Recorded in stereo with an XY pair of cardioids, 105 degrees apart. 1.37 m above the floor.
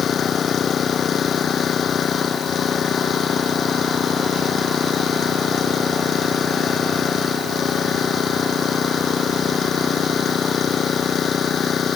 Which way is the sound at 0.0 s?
50° left.